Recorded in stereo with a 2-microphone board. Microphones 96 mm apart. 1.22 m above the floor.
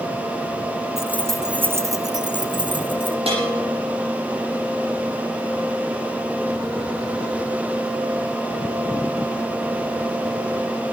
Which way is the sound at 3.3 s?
80° right.